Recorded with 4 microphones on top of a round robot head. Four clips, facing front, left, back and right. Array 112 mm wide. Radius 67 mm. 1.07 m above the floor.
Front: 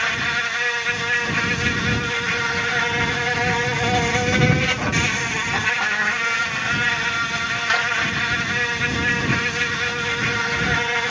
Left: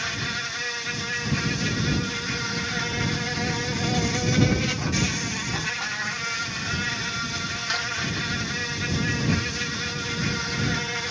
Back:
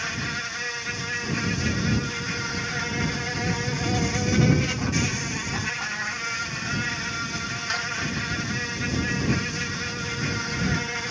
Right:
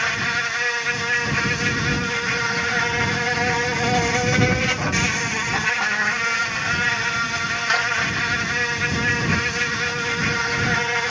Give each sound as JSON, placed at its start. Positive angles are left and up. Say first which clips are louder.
{"t": 0.0, "sound": "an insect", "louder": "right 7 dB, front 8 dB", "azimuth_deg": -40}